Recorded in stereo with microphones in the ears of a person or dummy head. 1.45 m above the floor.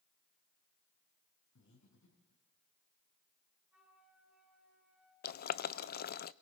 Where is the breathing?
70° left (ahead or behind), 6.5 m.